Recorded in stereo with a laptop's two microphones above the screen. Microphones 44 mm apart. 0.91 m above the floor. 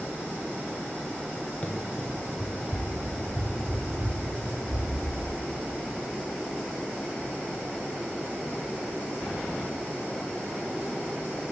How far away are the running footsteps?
About 1.0 m.